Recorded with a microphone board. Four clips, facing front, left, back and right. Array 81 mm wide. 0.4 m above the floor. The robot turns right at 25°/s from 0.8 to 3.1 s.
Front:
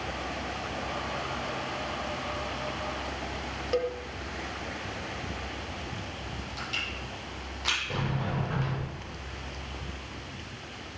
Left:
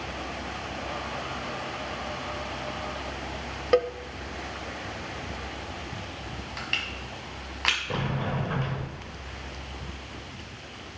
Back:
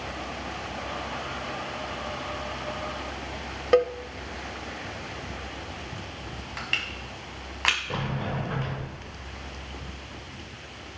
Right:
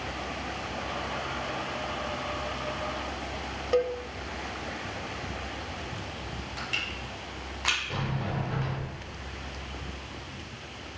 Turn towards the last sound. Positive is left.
turn(degrees=115)